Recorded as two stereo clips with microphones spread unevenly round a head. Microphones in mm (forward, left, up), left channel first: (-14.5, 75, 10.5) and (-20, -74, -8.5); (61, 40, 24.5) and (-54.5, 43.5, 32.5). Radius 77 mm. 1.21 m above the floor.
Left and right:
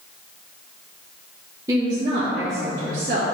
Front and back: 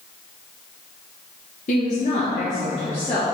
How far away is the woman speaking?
About 1.1 m.